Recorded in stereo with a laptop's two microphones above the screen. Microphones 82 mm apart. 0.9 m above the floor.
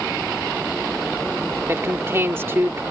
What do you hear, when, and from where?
1.7 s a man speaking: 30° right (ahead or behind)